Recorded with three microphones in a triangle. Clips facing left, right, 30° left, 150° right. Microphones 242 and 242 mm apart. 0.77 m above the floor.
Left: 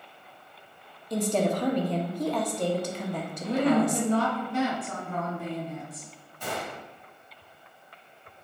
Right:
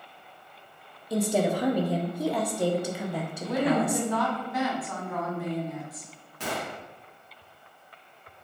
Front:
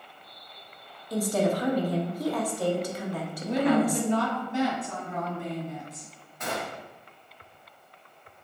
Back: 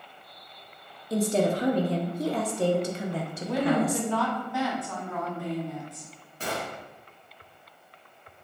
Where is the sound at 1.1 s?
160° right, 0.6 m.